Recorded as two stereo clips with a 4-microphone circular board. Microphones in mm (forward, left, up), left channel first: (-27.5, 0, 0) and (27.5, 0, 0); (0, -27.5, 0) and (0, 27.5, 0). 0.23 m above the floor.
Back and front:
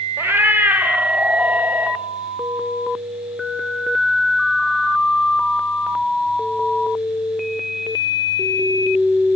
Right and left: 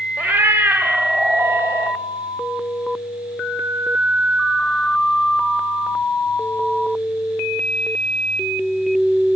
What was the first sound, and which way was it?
A cat meowing, 40° left.